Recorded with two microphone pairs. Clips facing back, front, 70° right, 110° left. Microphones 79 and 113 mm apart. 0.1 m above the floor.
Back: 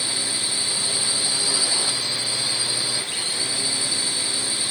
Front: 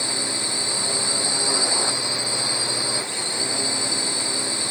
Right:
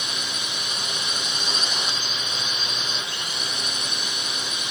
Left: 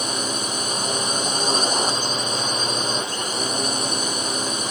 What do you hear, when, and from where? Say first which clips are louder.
0.0 s a drone: front 3 dB, left 7 dB; 65° left